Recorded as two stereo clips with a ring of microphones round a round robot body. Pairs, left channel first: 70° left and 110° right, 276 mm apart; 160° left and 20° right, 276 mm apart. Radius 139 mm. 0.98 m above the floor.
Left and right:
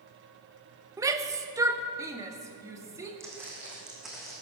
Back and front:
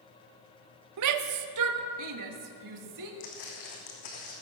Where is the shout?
35° right, 0.8 m.